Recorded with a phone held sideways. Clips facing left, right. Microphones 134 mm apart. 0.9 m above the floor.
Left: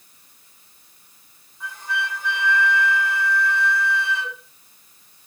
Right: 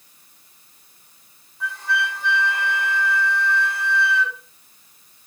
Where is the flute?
80° right, 5 m.